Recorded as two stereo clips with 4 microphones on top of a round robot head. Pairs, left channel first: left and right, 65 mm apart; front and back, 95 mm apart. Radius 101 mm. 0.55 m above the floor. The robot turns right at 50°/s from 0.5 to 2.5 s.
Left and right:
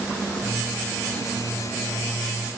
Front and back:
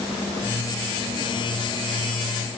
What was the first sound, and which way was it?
Only background noise.